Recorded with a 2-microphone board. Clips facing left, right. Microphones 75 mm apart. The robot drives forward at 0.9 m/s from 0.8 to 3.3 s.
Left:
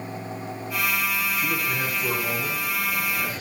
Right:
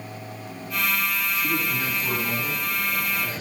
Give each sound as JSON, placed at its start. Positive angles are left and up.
{"t": 1.4, "sound": "a man speaking", "side_deg": 60, "distance_m": 6.5}